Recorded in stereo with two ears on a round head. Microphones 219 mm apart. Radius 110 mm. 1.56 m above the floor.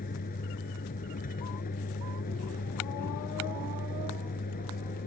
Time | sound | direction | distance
0.0 | a vehicle | 35° left (ahead or behind) | ?